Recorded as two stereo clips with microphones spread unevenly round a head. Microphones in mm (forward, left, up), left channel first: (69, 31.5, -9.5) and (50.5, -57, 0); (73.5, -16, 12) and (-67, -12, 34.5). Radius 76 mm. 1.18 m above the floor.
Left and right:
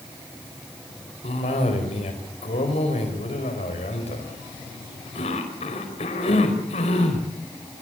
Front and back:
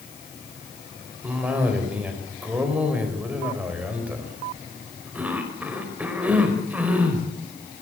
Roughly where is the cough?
Left.